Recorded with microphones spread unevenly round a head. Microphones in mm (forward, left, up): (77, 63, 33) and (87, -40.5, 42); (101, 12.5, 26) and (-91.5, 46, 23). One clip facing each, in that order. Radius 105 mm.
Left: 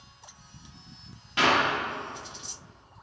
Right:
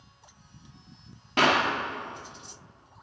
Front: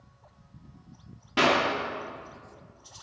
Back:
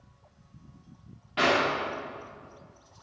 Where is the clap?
50° right, 2 m.